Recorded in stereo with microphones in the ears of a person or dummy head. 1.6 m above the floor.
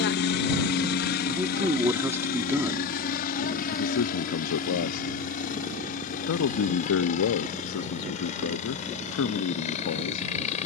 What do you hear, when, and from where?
0.0 s a helicopter: 60° left (ahead or behind); by 10.7 s 40° left (ahead or behind)
1.3 s a man speaking: 15° right (ahead or behind)
3.7 s a man speaking: 75° left (ahead or behind)